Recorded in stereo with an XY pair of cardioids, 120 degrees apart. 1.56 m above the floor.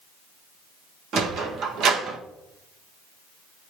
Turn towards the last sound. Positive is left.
turn(degrees=-65)